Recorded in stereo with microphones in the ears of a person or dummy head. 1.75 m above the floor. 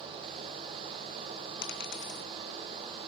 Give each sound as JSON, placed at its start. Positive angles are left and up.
{"t": 1.6, "sound": "a dropped coin", "side_deg": 55, "distance_m": 3.5}